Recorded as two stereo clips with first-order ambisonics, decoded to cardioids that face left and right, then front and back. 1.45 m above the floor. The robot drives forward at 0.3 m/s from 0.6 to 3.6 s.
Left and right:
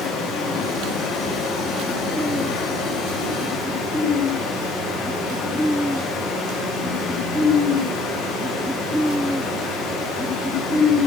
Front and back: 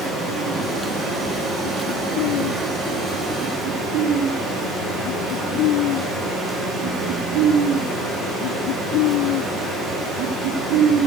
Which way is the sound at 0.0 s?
110° left.